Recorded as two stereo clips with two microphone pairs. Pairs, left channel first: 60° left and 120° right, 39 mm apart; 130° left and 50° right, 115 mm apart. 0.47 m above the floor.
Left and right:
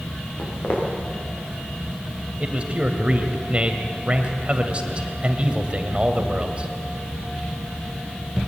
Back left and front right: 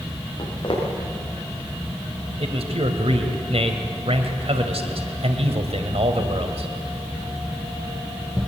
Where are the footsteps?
85° left, 7.5 m.